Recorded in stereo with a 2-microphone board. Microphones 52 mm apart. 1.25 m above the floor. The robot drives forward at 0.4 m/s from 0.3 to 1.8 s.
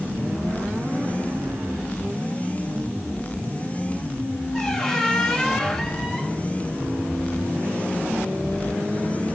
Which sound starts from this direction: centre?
A squeak, at 4.5 s.